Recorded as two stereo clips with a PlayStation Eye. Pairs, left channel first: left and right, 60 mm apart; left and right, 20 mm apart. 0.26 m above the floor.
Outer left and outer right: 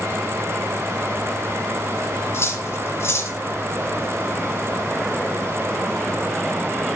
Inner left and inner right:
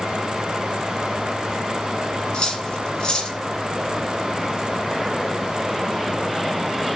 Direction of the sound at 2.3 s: 45° left (ahead or behind).